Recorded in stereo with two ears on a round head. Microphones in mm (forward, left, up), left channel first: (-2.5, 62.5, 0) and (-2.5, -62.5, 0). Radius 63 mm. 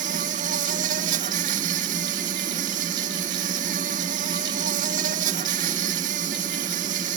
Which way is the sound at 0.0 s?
65° right (ahead or behind).